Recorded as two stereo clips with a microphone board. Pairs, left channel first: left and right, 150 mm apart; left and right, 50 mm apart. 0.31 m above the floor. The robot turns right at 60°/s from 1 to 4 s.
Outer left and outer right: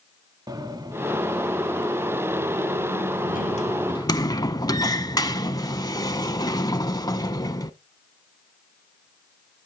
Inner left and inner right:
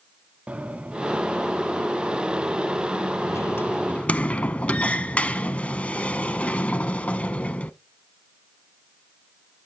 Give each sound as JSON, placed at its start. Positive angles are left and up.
{"t": 0.5, "sound": "a sliding door", "side_deg": -25, "distance_m": 0.7}